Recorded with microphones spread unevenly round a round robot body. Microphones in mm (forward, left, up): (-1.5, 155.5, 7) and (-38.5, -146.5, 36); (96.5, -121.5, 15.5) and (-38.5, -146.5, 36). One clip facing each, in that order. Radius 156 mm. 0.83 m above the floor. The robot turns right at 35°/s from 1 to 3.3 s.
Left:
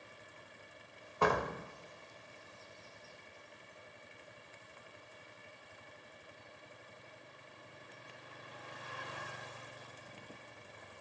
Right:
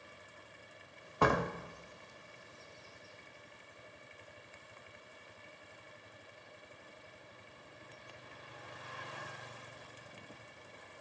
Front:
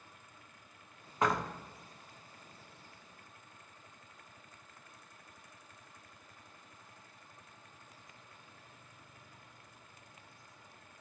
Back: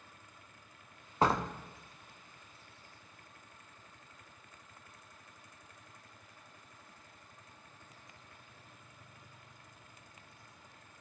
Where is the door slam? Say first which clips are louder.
Right 1 dB, back 2 dB; 105° right, 1.1 m; by 1.5 s 95° right, 1.1 m.